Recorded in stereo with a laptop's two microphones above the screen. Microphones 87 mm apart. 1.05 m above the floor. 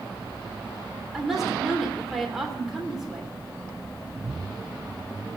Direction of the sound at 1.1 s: 5° right (ahead or behind).